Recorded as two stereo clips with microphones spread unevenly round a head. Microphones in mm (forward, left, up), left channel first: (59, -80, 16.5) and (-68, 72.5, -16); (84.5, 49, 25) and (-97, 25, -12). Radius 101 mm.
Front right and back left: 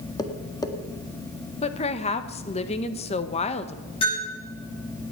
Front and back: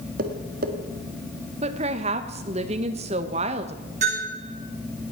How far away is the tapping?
About 1.5 m.